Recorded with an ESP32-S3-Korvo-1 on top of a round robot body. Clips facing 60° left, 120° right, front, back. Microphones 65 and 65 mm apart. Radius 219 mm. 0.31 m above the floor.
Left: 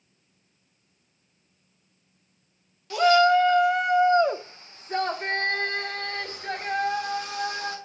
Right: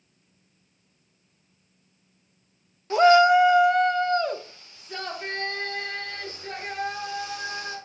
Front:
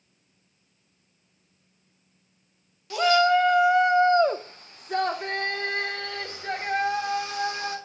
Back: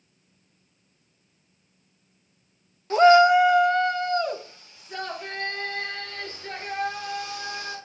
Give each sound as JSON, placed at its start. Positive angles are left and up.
{"t": 2.9, "sound": "a shout", "azimuth_deg": -160, "distance_m": 1.1}